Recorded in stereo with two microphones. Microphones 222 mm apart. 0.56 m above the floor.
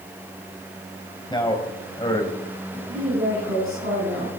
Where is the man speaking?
20° left (ahead or behind), 3 m.